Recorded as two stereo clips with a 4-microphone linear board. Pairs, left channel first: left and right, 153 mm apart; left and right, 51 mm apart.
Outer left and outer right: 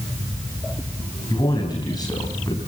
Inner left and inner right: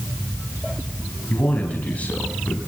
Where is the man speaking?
25° left (ahead or behind), 4 m.